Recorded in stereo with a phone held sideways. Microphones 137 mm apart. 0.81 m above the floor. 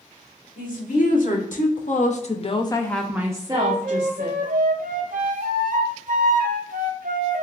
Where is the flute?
75° right (ahead or behind), 0.7 m.